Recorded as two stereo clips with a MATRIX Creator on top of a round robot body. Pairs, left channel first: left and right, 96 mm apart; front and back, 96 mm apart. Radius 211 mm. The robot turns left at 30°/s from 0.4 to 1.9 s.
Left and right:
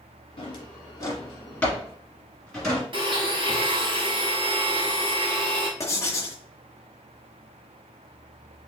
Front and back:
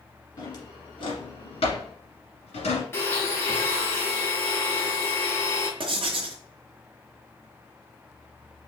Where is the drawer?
50° left, 1.8 m; by 2.8 s 5° left, 1.8 m.